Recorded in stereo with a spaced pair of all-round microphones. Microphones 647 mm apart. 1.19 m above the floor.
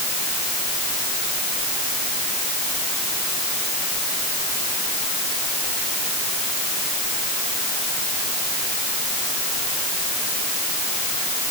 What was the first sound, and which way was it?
Only background noise.